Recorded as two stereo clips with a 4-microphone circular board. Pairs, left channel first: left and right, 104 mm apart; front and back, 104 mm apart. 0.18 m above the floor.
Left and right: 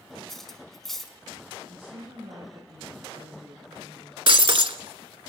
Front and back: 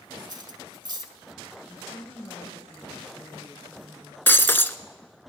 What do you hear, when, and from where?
0.3 s cutlery clinking: 175° left, 1.0 m
1.7 s a woman speaking: 70° right, 6 m
4.3 s breaking glass: 65° right, 0.5 m